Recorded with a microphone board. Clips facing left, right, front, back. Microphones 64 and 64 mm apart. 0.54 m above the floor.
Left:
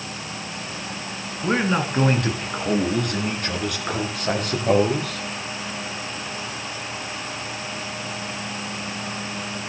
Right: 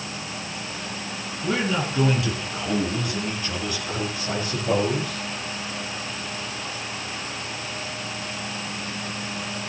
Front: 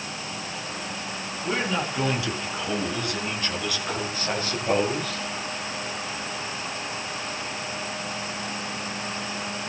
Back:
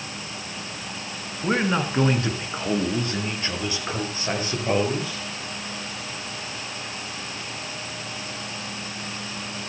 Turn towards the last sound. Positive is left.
turn(degrees=105)